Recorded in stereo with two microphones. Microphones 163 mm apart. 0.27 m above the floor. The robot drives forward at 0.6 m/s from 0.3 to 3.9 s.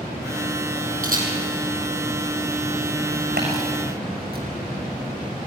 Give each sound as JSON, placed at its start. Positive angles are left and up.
{"t": 1.0, "sound": "a camera shutter", "side_deg": -60, "distance_m": 6.0}
{"t": 3.4, "sound": "tapping", "side_deg": -85, "distance_m": 7.0}